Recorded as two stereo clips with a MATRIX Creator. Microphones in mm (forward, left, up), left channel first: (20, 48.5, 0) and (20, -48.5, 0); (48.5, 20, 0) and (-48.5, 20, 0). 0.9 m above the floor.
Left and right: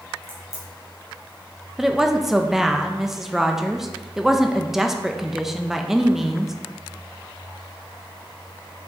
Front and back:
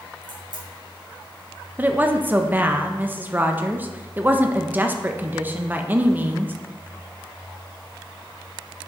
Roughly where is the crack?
Behind left.